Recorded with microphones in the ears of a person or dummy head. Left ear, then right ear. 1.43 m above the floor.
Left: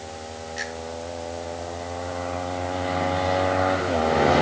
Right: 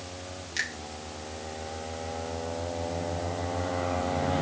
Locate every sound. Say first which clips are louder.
0.6 s a finger snap: right 1 dB; 80° right, 6 m